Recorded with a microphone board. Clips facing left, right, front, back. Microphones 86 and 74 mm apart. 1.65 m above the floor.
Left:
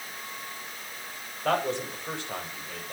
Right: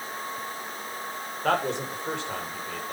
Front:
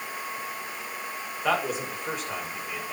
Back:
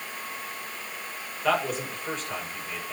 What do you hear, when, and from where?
1.4 s a man speaking: 80° right, 6.5 m